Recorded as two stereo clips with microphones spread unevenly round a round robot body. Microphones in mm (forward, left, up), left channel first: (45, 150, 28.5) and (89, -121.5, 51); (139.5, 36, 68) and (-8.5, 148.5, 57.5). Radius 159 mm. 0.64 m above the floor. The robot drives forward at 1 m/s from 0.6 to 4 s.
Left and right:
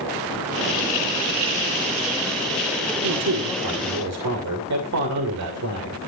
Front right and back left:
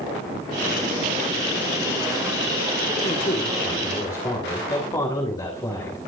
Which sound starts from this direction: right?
A man speaking, at 3.0 s.